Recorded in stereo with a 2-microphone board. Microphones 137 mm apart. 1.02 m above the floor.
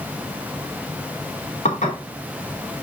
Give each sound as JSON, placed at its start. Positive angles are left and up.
{"t": 1.6, "sound": "dishes clattering", "side_deg": 60, "distance_m": 2.5}